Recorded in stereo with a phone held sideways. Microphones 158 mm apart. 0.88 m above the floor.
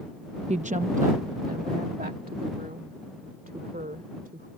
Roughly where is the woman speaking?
Right.